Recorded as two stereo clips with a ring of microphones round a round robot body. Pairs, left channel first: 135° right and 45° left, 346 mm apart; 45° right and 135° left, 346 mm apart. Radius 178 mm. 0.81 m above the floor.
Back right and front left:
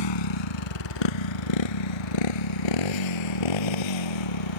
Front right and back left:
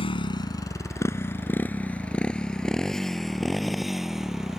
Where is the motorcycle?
120° right; by 4.6 s 135° right.